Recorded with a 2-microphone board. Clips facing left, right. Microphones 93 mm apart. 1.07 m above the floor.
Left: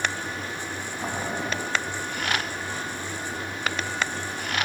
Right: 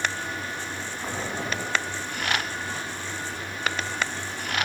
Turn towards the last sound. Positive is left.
turn(degrees=35)  # may be behind; listen again after turning